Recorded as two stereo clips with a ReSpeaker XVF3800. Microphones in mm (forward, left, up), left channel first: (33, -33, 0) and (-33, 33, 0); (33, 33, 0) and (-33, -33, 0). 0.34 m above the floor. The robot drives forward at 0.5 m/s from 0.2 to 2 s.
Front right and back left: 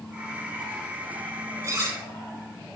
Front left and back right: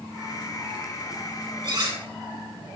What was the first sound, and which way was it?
Cutlery clinking, 170° right.